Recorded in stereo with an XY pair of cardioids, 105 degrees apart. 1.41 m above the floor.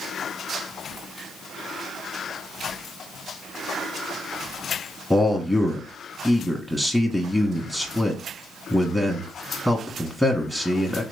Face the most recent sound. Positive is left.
turn(degrees=10)